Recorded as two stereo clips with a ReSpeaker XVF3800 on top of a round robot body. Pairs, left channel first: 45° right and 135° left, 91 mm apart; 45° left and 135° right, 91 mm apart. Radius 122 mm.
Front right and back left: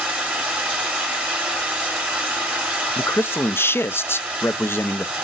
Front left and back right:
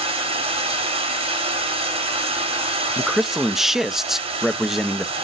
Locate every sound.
0.0 s running water: 145° right, 1.3 m
3.0 s a man speaking: 55° right, 0.5 m